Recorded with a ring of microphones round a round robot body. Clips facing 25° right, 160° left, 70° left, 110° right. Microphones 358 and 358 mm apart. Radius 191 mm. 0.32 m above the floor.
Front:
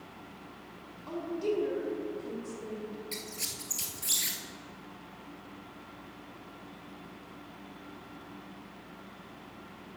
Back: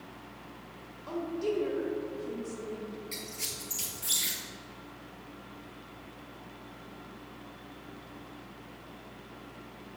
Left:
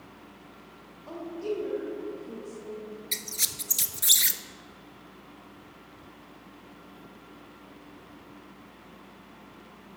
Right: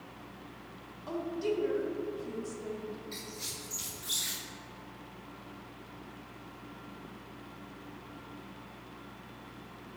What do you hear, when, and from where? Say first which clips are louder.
1.1 s a woman speaking: even, even; 105° right, 1.6 m
3.1 s a squeak: even, even; 60° left, 0.6 m